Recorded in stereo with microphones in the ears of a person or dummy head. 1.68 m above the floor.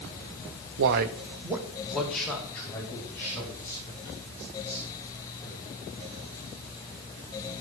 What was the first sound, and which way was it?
A man speaking, 70° right (ahead or behind).